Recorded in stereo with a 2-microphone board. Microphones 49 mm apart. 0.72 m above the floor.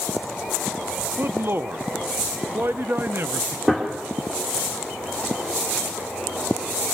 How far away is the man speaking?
About 0.7 m.